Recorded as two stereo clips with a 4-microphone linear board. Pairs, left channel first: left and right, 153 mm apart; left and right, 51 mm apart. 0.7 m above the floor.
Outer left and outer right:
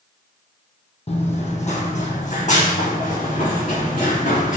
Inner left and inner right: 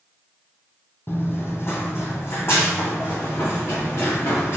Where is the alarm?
I don't hear an alarm.